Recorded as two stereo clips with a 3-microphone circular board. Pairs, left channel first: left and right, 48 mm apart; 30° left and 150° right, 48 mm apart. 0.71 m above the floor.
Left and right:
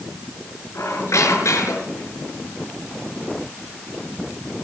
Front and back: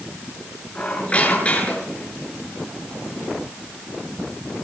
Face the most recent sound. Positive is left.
turn(degrees=95)